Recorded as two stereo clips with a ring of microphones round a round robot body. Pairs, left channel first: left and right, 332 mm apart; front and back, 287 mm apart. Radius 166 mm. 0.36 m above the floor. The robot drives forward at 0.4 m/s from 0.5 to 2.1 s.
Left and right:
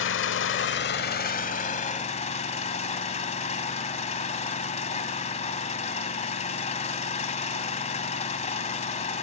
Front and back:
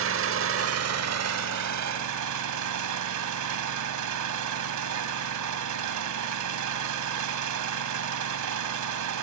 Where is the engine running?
140° left, 0.8 m; by 9.2 s 160° left, 1.3 m.